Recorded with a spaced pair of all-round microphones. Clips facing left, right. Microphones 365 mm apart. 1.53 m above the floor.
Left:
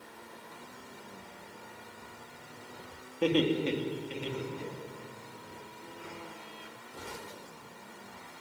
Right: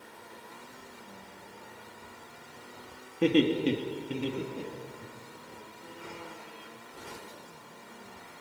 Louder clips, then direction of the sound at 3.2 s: Right 3 dB; 35° right (ahead or behind).